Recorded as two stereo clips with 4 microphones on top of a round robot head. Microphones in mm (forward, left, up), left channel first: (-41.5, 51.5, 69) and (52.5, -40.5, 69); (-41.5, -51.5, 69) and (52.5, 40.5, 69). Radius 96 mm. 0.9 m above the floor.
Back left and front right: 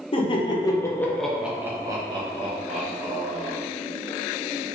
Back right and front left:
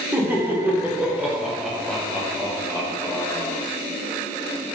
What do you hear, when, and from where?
0.1 s laughter: 115° left, 1.0 m; by 3.6 s 60° right, 1.4 m